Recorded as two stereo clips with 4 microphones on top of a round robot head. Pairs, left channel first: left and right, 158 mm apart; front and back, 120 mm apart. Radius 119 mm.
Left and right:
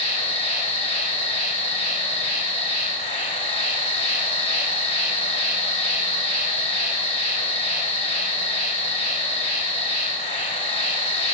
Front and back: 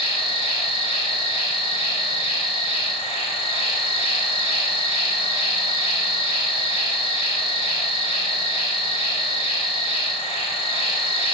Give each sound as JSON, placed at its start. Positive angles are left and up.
{"t": 0.0, "sound": "an insect", "azimuth_deg": 25, "distance_m": 1.0}